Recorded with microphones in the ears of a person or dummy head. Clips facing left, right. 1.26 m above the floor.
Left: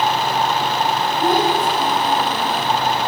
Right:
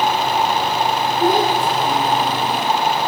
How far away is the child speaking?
About 4.5 m.